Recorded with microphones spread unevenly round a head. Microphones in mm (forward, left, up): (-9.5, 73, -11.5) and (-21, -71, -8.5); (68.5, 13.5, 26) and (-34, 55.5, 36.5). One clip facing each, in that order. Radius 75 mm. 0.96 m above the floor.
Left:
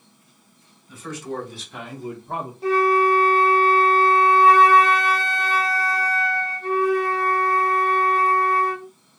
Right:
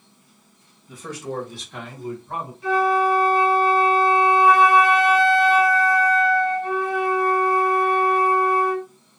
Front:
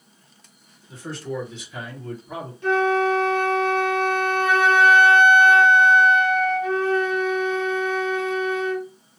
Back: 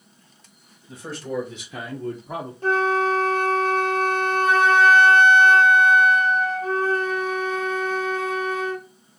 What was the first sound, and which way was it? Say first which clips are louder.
A man speaking: even, even; 145° right.